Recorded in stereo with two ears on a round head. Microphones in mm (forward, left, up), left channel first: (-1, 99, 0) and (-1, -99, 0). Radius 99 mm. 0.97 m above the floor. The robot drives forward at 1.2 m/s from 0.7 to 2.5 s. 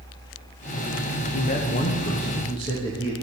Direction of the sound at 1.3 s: 30° left (ahead or behind).